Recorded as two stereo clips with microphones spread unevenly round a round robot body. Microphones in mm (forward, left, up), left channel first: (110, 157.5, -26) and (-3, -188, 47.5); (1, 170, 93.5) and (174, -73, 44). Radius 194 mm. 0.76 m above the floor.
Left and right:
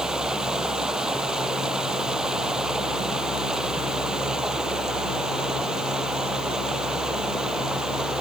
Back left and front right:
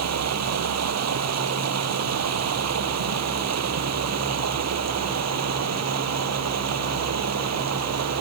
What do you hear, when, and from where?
0.0 s running water: 20° right